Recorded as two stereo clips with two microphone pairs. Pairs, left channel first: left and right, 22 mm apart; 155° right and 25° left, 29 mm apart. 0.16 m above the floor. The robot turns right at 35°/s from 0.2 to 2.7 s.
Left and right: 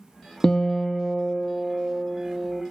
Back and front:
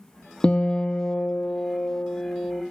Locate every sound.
0.4 s a guitar: 150° left, 0.7 m; by 2.6 s 130° right, 0.7 m